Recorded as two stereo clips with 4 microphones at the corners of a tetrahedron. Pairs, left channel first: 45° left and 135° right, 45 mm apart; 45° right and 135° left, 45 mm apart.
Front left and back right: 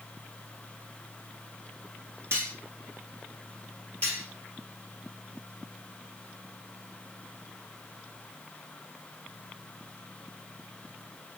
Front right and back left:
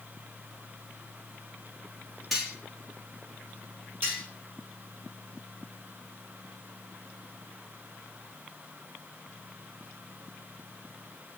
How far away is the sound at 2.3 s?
About 1.7 m.